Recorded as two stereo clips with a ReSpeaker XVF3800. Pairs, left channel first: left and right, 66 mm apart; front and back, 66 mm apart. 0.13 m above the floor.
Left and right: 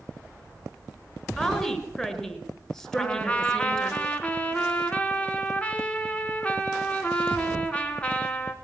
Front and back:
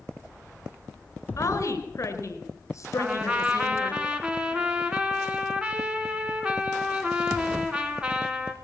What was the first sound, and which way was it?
A woman speaking, 10° left.